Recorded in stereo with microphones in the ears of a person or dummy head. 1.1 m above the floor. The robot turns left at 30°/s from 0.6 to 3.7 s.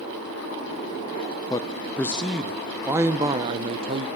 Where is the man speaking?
25° left, 0.6 m; by 4.1 s 40° right, 0.6 m.